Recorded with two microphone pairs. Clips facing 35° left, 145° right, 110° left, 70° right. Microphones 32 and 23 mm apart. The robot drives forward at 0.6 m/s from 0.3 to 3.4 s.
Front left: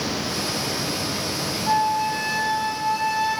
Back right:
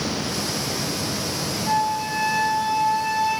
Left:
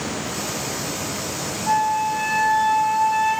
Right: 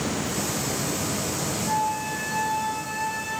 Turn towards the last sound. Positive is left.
turn(degrees=145)